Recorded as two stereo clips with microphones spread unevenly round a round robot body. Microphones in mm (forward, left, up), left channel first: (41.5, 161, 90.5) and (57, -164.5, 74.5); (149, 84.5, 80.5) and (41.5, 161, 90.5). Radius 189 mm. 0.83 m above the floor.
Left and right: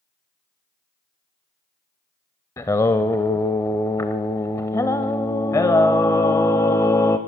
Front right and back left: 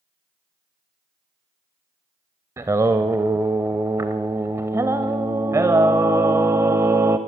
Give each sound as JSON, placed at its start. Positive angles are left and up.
{"t": 2.6, "sound": "singing", "azimuth_deg": 155, "distance_m": 0.6}